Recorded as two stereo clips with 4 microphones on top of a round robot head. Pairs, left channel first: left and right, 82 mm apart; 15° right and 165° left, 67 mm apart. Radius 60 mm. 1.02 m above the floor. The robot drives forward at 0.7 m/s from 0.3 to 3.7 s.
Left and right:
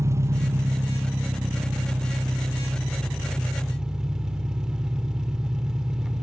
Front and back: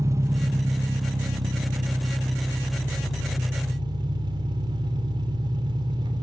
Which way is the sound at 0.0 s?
145° right.